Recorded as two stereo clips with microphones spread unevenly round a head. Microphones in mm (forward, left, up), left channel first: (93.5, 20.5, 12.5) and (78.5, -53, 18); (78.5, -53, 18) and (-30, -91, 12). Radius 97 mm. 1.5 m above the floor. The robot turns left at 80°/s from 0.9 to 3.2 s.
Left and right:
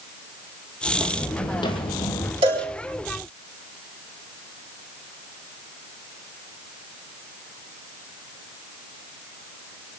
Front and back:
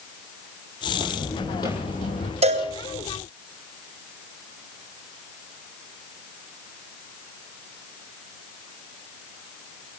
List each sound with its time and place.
0.9 s footsteps: 140° left, 2.5 m; by 2.3 s 30° left, 3 m
2.4 s a cowbell: 135° right, 3.5 m; by 2.7 s 155° right, 3.5 m